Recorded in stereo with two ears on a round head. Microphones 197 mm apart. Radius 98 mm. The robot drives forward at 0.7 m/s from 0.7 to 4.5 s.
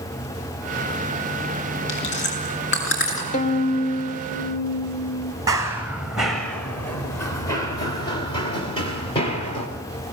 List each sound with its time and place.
1.9 s chewing: 55° left (ahead or behind), 7.5 m; by 3.2 s 60° left (ahead or behind), 7 m
3.3 s a violin: 35° left (ahead or behind), 1.7 m; by 5.3 s 55° left (ahead or behind), 1.1 m
5.5 s running footsteps: 15° right (ahead or behind), 1.7 m; by 9.7 s 30° left (ahead or behind), 4.5 m